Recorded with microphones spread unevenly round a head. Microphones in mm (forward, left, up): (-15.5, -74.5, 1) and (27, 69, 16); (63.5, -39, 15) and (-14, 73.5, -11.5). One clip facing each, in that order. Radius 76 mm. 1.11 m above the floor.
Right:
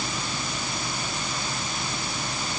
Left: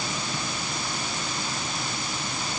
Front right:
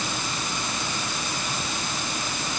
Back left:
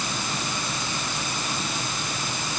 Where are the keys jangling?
No keys jangling in this recording.